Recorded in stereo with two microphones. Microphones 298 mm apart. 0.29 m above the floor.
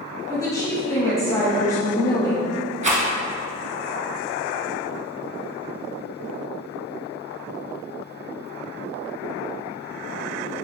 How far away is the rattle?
About 0.9 m.